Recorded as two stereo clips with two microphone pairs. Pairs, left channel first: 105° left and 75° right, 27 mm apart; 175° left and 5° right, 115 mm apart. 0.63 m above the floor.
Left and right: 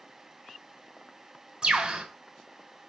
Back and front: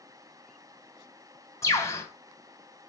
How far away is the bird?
About 2.5 m.